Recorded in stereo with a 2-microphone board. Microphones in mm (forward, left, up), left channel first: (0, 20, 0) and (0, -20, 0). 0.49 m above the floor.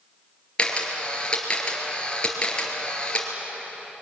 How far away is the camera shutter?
About 3.5 m.